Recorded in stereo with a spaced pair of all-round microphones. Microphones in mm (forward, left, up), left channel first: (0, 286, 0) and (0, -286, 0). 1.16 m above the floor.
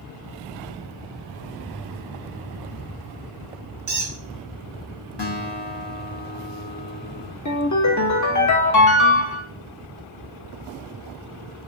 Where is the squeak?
35° right (ahead or behind), 0.6 m.